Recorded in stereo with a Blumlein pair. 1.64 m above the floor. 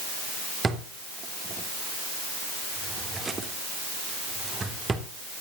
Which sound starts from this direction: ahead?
A drawer, at 0.6 s.